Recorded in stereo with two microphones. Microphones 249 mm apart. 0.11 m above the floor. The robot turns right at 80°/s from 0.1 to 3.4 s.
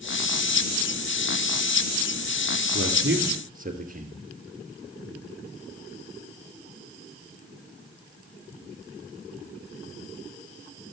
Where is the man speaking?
55° right (ahead or behind), 1.9 m; by 4.2 s 35° right (ahead or behind), 1.9 m.